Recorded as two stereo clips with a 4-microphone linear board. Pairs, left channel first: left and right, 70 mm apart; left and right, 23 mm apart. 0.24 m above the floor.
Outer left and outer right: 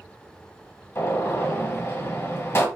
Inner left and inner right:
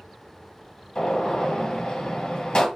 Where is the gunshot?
40° left (ahead or behind), 1.0 m.